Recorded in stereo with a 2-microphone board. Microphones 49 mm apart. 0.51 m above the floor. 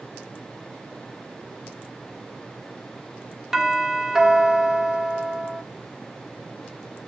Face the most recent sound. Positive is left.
turn(degrees=-10)  # may be behind; listen again after turning